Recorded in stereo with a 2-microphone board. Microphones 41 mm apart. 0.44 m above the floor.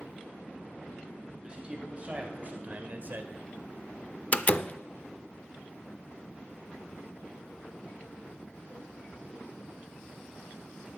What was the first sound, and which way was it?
A man speaking, 25° right (ahead or behind).